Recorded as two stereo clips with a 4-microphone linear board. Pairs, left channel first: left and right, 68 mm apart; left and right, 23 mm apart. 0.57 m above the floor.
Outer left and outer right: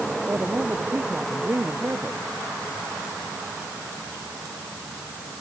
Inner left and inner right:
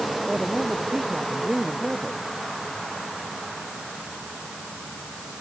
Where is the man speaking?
30° right (ahead or behind).